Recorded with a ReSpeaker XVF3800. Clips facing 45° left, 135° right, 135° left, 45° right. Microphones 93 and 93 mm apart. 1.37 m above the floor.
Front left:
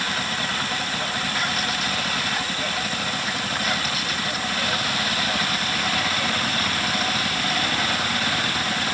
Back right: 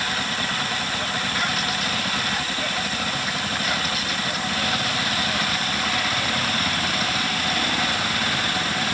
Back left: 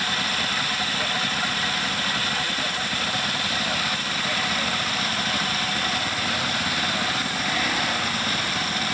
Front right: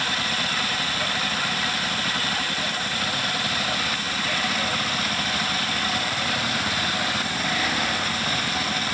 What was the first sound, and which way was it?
Only background noise.